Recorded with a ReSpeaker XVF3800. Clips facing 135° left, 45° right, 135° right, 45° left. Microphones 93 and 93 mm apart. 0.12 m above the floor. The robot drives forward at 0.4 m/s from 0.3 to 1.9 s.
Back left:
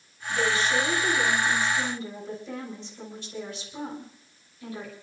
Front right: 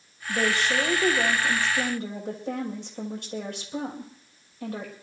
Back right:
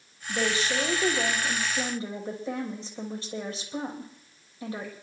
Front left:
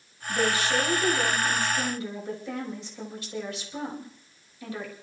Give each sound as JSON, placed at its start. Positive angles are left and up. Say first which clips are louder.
{"t": 0.3, "sound": "a woman speaking", "louder": "even, front left 2 dB", "azimuth_deg": -70, "distance_m": 6.0}